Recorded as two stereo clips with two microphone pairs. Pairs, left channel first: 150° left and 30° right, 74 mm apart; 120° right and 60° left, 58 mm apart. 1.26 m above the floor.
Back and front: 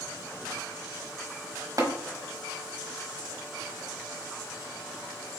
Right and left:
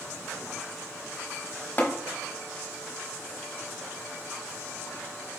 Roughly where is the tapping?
Right.